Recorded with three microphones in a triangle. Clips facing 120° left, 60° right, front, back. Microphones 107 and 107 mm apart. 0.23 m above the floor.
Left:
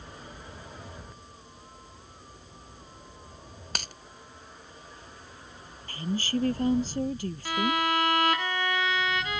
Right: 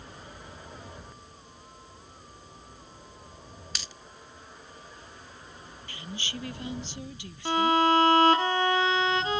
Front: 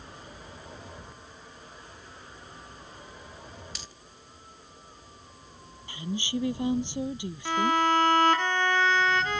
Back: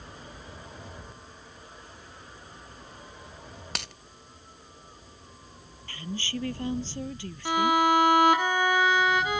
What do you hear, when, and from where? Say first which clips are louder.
3.8 s a dropped coin: left 8 dB, back 8 dB; 160° left
5.9 s a woman speaking: left 10 dB, front 3 dB; 75° left
7.5 s a violin: right 5 dB, back 2 dB; 105° right